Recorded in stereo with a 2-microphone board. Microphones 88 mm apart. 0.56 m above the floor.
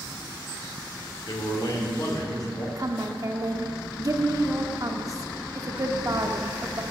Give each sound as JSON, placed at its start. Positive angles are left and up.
{"t": 1.3, "sound": "a man speaking", "side_deg": 50, "distance_m": 1.6}
{"t": 2.8, "sound": "a woman speaking", "side_deg": -40, "distance_m": 0.8}